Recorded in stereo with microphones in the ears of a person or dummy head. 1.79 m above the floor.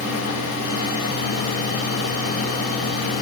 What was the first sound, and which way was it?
Only background noise.